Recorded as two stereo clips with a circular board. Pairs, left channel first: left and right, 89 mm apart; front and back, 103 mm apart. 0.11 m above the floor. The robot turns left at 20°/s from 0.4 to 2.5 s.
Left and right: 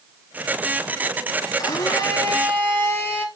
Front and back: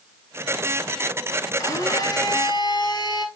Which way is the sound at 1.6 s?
50° left.